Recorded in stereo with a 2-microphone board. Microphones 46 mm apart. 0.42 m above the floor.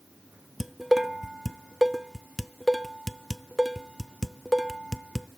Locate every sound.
0.6 s dishes clattering: 5° right (ahead or behind), 0.7 m